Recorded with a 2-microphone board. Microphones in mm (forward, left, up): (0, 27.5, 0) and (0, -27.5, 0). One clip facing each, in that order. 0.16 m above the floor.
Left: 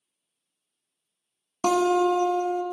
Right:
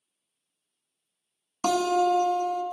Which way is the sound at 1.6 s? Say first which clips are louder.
Left 2 dB; 30° left (ahead or behind).